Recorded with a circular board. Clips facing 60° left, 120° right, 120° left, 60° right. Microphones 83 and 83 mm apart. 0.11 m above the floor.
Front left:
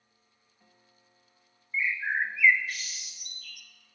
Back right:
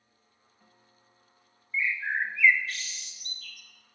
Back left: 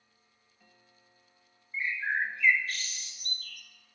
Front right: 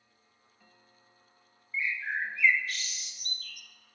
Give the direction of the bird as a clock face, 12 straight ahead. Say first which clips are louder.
Even, back left 2 dB; 8 o'clock.